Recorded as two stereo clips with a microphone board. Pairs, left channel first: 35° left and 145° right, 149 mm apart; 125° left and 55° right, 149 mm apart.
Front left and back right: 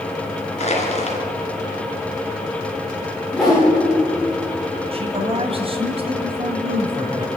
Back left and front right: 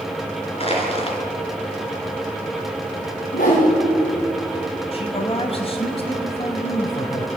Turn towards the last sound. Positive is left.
turn(degrees=170)